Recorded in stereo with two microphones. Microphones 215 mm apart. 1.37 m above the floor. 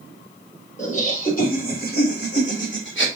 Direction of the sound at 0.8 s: 35° left (ahead or behind).